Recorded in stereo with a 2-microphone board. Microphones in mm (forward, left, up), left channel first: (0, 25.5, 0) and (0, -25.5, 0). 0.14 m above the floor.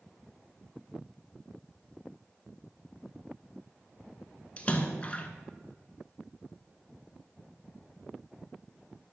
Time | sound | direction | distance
4.6 | a splash | 25° left (ahead or behind) | 0.9 m